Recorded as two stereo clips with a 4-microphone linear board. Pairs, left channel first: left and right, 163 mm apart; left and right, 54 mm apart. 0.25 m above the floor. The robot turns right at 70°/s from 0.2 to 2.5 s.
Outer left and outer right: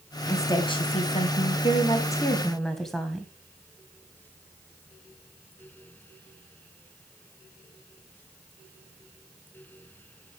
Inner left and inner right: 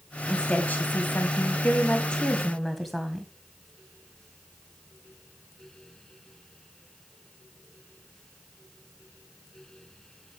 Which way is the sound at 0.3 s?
20° left.